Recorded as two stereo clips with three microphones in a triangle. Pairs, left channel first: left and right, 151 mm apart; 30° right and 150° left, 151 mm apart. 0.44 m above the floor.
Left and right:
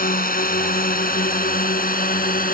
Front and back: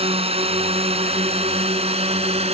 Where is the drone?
100° left; by 2.5 s 105° left.